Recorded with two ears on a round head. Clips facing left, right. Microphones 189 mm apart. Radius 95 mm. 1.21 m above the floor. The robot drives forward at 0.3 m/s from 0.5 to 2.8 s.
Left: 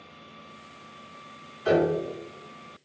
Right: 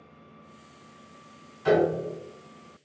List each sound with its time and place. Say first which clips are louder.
1.6 s a piano: even; 60° right (ahead or behind), 2.0 m